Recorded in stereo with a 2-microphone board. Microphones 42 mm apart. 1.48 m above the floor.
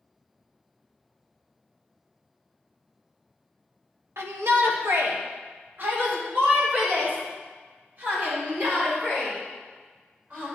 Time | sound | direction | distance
4.2 | a shout | 80° right | 1.5 m